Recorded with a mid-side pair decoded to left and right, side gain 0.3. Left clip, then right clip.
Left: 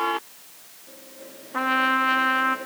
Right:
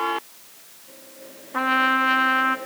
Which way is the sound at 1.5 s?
20° right.